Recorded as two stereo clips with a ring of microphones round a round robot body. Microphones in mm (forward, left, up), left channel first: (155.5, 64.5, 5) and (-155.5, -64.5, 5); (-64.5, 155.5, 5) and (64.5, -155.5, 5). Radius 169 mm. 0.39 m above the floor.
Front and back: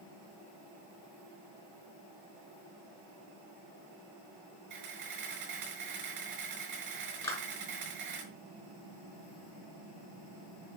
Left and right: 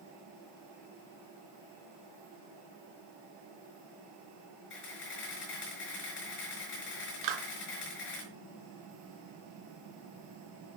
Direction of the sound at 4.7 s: 170° left.